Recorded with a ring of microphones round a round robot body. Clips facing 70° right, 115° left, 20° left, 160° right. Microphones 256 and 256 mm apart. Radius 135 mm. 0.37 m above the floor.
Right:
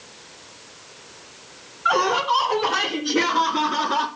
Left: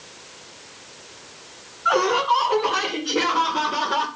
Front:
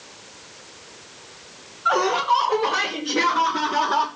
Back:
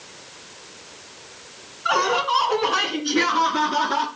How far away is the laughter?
About 3.5 m.